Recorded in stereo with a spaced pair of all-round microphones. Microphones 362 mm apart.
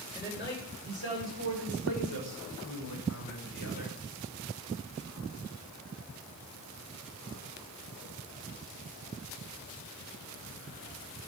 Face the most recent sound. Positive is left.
turn(degrees=85)